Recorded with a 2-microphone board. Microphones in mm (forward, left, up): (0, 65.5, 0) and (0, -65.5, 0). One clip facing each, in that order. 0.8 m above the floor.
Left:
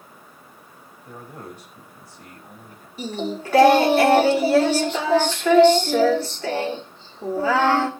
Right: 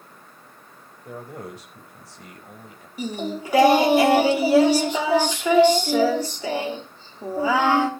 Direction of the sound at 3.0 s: 10° right (ahead or behind).